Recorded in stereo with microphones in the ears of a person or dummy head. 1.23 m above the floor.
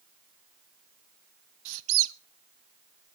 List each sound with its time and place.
1.6 s a squeak: 75° right (ahead or behind), 0.7 m